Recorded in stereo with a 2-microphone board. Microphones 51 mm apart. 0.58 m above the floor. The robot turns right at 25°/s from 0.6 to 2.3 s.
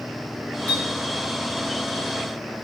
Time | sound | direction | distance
0.7 | a clink | 35° left (ahead or behind) | 3.5 m